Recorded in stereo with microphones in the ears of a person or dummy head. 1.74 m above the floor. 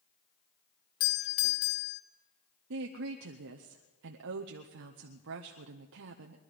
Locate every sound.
1.0 s a doorbell: 45° left (ahead or behind), 0.9 m
2.7 s a woman speaking: 65° right (ahead or behind), 0.7 m